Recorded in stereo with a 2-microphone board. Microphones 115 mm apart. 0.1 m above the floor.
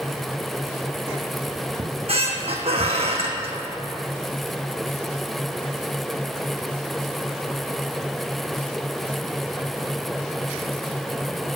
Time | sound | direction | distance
1.8 | a squeak | 60° right (ahead or behind) | 0.9 m